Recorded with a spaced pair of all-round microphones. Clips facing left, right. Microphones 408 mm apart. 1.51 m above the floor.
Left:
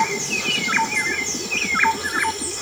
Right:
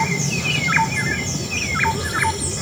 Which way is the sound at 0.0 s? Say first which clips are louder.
Right 2 dB; 60° right (ahead or behind).